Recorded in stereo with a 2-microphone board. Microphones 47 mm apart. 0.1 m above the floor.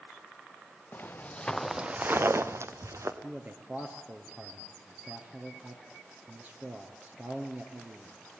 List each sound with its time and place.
0.9 s footsteps: 45° left (ahead or behind), 1.5 m; by 3.1 s 80° right, 2 m
3.2 s a man speaking: 35° right (ahead or behind), 2.5 m